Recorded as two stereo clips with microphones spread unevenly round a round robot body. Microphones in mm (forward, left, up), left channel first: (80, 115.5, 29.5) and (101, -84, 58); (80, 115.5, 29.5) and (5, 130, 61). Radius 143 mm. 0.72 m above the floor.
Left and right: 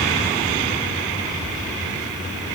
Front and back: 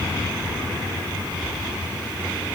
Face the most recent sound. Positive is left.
No sound to turn to.